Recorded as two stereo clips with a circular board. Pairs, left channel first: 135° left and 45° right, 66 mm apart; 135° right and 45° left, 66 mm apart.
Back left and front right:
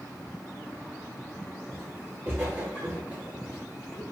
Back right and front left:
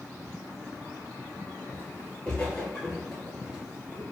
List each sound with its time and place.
1.7 s footsteps: 85° right, 1.5 m; by 4.0 s 45° left, 1.1 m